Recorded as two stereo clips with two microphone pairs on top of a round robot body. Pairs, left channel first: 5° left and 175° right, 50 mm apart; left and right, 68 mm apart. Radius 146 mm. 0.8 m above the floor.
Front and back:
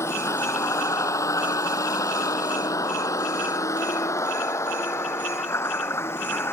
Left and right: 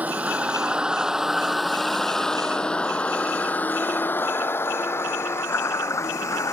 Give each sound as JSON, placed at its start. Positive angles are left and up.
{"t": 0.0, "sound": "a vehicle", "azimuth_deg": -25}